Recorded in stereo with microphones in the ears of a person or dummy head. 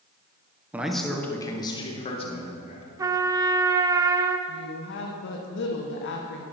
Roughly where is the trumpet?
Centre.